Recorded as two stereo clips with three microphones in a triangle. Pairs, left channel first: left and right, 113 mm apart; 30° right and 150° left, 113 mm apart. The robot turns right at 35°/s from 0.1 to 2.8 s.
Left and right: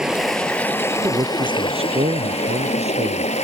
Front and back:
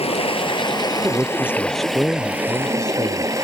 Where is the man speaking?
145° right; by 3.3 s 85° right.